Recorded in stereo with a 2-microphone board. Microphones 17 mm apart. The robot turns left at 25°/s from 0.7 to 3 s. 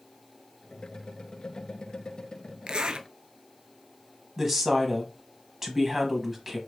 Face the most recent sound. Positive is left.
turn(degrees=-20)  # may be behind; listen again after turning